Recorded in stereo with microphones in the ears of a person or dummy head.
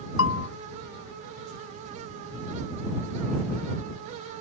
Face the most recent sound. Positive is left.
turn(degrees=85)